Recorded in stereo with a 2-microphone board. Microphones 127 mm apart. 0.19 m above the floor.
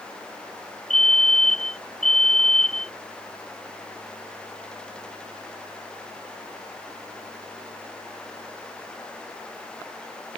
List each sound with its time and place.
0.9 s a fire alarm: 75° left (ahead or behind)